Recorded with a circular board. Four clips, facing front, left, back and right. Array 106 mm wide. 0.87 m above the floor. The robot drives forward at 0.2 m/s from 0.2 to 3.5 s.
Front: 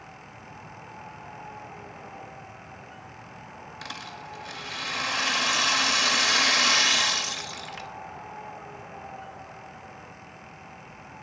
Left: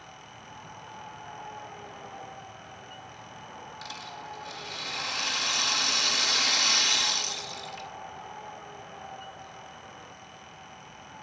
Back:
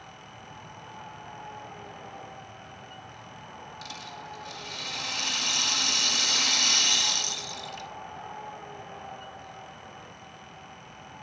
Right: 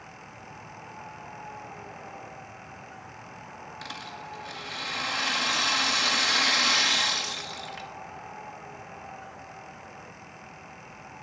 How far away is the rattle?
About 0.6 m.